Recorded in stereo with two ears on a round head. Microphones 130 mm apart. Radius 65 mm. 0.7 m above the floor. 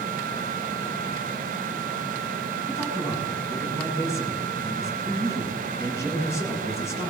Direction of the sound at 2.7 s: 20° left (ahead or behind).